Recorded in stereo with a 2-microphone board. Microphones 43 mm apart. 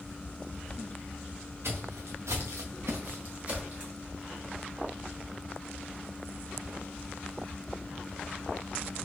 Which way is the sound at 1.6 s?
70° right (ahead or behind).